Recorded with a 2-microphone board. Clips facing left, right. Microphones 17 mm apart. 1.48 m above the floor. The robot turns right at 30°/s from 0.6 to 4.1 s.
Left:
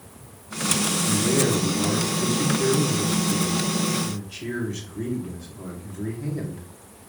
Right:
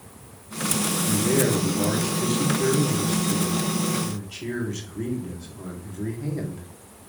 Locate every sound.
1.1 s a man speaking: 105° right, 1.7 m; by 6.7 s 10° right, 1.7 m